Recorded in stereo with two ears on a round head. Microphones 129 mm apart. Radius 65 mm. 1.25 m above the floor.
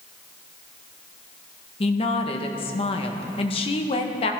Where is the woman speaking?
40° left (ahead or behind), 1.3 m.